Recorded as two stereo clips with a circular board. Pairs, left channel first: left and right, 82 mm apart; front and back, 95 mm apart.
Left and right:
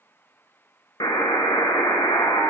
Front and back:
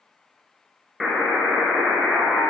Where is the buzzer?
90° left, 0.7 m.